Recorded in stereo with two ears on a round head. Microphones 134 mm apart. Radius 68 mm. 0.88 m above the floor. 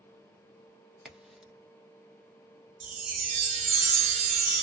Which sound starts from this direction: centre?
A crack, at 1.1 s.